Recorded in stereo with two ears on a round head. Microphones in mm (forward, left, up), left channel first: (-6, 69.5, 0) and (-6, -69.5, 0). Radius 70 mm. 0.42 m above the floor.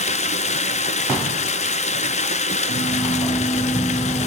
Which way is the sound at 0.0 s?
40° left (ahead or behind).